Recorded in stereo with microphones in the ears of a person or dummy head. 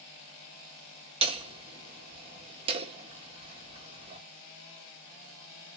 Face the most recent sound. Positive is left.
turn(degrees=-30)  # may be behind; listen again after turning